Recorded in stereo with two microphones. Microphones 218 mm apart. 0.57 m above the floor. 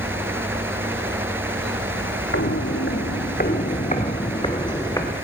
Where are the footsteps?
65° left (ahead or behind), 1.2 m; by 5.1 s 15° left (ahead or behind), 2 m.